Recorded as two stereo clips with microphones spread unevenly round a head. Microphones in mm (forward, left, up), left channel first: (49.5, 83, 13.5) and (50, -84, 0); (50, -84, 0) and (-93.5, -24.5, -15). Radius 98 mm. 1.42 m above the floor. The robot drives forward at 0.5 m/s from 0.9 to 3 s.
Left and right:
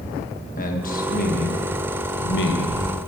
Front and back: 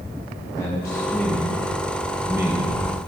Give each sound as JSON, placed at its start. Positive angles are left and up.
{"t": 0.6, "sound": "a man speaking", "azimuth_deg": 50, "distance_m": 1.7}